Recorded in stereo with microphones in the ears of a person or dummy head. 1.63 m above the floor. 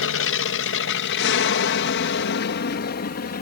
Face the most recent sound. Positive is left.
turn(degrees=50)  # may be behind; listen again after turning